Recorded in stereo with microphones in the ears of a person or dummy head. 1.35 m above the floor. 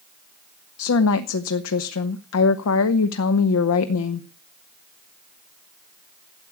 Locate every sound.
0.8 s a woman speaking: 85° left, 1.1 m